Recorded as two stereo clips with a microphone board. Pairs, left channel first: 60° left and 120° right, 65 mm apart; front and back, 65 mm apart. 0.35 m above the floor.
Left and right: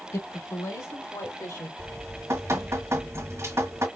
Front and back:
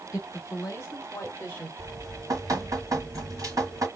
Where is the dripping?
160° right, 1.8 m.